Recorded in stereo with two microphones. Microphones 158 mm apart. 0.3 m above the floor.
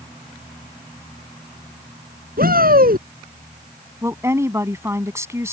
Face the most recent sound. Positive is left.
turn(degrees=-15)  # may be behind; listen again after turning